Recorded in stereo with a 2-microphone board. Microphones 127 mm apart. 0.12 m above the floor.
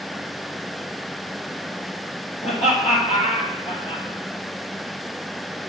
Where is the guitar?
No guitar in this recording.